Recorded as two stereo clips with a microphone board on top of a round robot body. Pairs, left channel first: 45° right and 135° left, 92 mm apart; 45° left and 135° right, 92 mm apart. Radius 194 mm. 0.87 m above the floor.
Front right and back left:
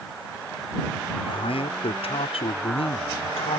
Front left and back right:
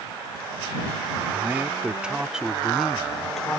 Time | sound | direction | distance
1.2 | a man speaking | 65° right | ?